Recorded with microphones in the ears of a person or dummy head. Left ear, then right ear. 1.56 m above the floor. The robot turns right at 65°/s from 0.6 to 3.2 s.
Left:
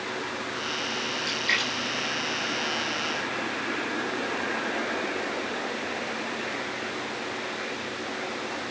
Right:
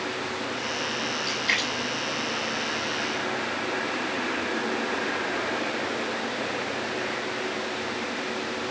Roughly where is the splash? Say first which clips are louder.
Even; centre.